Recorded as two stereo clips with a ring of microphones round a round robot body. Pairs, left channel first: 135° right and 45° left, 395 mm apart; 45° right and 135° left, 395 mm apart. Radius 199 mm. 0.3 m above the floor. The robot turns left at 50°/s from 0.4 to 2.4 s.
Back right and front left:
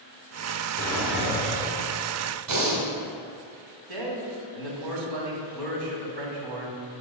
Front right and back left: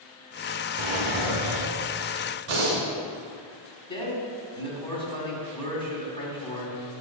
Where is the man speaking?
30° left, 3 m.